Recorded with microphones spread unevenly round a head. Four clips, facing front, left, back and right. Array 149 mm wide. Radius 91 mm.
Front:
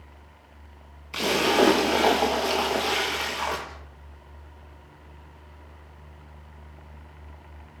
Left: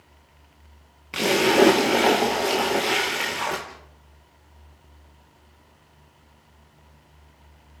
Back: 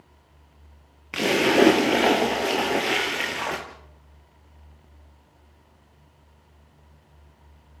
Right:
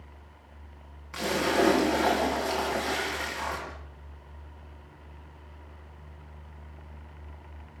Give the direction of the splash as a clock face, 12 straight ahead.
7 o'clock.